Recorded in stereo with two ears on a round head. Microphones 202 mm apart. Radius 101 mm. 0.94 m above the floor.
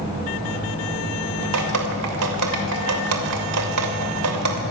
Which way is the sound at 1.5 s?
85° right.